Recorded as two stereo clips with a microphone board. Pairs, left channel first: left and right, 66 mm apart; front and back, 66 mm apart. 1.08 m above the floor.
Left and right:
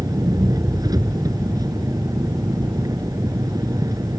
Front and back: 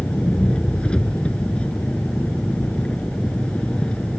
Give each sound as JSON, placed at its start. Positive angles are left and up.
{"t": 0.0, "sound": "an engine running", "azimuth_deg": -75}